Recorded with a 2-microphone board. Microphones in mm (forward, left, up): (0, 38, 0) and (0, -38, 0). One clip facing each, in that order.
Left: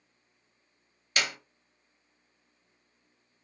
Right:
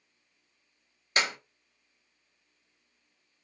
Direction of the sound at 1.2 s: 25° right (ahead or behind).